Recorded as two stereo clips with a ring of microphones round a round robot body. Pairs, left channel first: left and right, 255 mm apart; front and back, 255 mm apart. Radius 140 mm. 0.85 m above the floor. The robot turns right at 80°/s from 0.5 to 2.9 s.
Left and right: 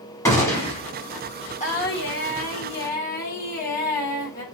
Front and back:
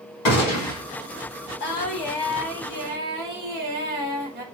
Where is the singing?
35° left, 1.2 m; by 4.4 s 135° left, 1.2 m.